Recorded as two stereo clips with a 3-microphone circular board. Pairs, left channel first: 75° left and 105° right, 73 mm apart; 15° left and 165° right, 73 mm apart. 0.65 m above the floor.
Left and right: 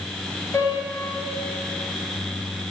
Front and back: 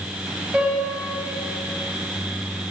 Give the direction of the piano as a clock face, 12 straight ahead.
8 o'clock.